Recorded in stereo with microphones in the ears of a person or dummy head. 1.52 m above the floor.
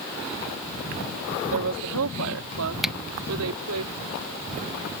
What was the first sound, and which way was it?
A woman speaking, 75° right (ahead or behind).